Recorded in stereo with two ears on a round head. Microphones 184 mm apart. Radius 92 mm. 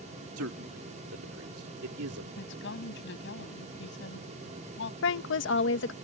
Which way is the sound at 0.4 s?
80° right.